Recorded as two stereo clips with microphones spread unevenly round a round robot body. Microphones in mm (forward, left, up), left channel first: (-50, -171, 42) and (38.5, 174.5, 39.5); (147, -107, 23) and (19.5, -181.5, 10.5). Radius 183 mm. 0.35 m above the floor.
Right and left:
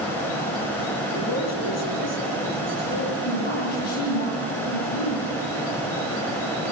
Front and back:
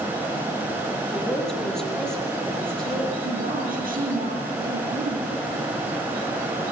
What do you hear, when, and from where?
1.1 s a woman speaking: 55° right, 8 m
3.2 s a woman speaking: 130° right, 8.5 m